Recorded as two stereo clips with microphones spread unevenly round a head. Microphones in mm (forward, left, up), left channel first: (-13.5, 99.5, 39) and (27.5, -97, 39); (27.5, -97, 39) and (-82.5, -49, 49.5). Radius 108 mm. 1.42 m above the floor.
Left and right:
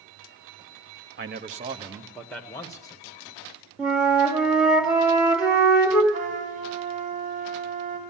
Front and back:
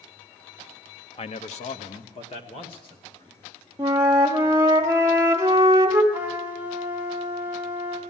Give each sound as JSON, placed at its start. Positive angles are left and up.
{"t": 1.2, "sound": "a man speaking", "azimuth_deg": -55, "distance_m": 0.9}
{"t": 3.8, "sound": "a flute", "azimuth_deg": -165, "distance_m": 1.0}
{"t": 6.1, "sound": "a trumpet", "azimuth_deg": -25, "distance_m": 4.0}